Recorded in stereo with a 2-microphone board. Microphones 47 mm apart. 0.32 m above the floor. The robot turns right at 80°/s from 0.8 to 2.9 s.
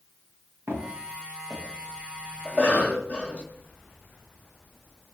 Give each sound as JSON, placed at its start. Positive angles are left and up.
{"t": 0.7, "sound": "footsteps", "side_deg": -65, "distance_m": 7.0}
{"t": 2.5, "sound": "a cough", "side_deg": 30, "distance_m": 1.6}